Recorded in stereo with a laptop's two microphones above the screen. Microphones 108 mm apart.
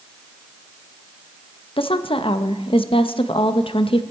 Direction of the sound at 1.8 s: 55° left (ahead or behind).